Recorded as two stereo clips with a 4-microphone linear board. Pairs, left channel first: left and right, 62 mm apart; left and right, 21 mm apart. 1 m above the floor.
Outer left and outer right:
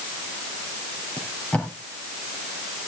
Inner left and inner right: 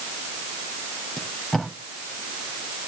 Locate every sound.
1.2 s tape being pulled: 20° left (ahead or behind), 3.5 m